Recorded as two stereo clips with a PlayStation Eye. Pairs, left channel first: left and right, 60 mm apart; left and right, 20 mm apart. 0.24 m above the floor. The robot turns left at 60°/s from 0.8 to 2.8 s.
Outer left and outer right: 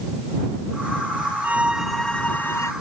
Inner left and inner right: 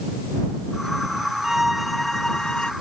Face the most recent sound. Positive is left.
turn(degrees=125)